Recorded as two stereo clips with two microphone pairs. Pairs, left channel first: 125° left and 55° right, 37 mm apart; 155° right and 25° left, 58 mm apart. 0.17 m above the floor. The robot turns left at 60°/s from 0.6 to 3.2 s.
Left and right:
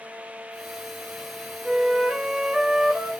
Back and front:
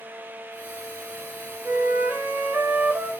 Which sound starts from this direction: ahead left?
A flute, at 1.6 s.